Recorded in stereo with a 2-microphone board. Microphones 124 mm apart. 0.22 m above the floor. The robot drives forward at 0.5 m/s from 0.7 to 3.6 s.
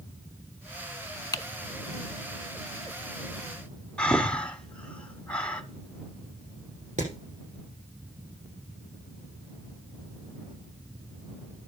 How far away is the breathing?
About 1.4 m.